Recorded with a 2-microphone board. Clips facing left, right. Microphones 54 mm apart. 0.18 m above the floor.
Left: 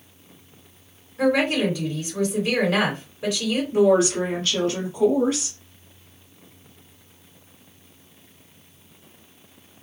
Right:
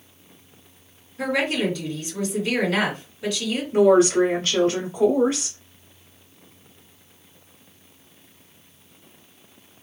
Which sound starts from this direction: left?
A woman speaking, at 1.2 s.